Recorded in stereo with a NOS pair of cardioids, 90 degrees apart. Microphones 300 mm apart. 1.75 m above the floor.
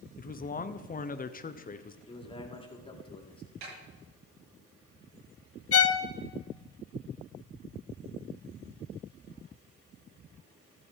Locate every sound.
0.2 s a man speaking: 30° left, 1.1 m
2.1 s a man speaking: 20° left, 4 m
3.6 s a snare drum: 65° right, 9.5 m
5.7 s a violin: 50° left, 1.2 m